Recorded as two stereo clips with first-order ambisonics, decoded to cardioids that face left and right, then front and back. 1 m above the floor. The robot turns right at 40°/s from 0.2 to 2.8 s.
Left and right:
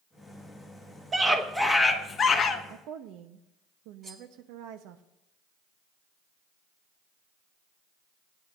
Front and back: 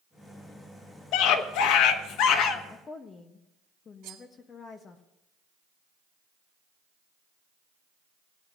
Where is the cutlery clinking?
155° right, 1.9 m.